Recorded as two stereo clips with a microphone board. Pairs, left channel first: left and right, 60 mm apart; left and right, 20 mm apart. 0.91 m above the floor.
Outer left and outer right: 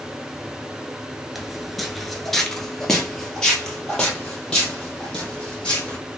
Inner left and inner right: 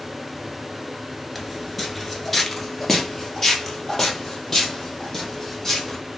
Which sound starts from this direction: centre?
Footsteps, at 1.4 s.